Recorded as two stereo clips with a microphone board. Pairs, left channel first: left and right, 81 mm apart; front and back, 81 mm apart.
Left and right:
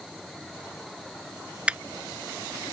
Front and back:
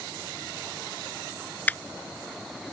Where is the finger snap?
35° right.